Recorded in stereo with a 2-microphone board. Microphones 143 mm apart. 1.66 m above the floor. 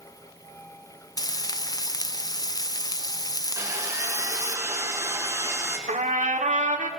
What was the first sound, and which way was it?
Frying, 30° left (ahead or behind).